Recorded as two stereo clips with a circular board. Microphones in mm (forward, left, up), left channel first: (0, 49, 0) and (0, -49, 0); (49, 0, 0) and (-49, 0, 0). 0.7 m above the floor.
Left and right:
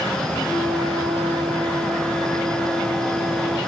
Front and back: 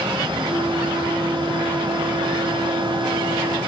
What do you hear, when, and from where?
0.5 s a flute: 160° left, 8.5 m